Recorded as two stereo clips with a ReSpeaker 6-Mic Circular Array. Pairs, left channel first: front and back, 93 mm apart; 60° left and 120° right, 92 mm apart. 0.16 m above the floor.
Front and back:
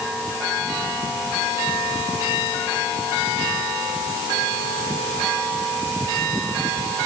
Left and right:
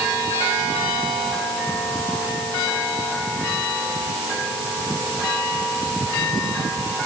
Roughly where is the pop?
I don't hear a pop.